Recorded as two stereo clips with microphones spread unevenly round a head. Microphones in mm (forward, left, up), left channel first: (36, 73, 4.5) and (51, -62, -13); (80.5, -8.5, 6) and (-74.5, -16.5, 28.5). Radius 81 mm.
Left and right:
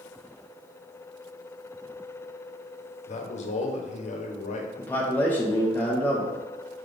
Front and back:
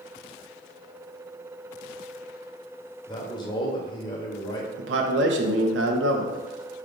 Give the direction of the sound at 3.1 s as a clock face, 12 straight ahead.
10 o'clock.